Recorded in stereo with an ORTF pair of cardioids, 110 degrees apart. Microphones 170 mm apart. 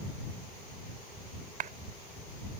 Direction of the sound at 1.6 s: 55° right.